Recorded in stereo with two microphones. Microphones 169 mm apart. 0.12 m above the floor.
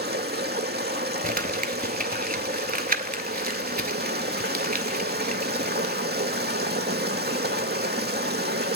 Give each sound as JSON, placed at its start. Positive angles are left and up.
{"t": 0.0, "sound": "running water", "side_deg": -85, "distance_m": 0.8}
{"t": 1.2, "sound": "crumpling", "side_deg": -60, "distance_m": 0.7}